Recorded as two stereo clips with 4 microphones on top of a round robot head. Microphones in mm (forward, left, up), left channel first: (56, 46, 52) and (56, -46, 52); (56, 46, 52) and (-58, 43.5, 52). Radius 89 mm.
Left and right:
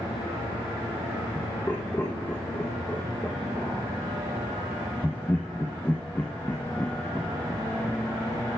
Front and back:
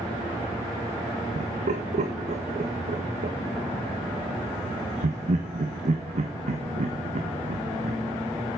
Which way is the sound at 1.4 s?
165° left.